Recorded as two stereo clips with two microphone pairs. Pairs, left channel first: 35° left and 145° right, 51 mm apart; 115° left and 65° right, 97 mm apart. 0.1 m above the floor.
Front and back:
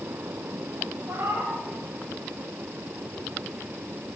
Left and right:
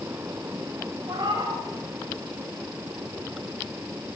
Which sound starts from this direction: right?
A cat meowing, at 1.1 s.